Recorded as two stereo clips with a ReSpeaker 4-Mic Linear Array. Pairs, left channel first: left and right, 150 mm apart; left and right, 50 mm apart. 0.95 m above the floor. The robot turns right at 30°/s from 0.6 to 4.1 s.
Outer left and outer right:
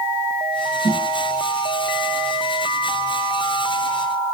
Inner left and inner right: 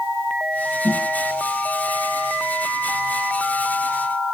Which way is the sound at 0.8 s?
50° left (ahead or behind).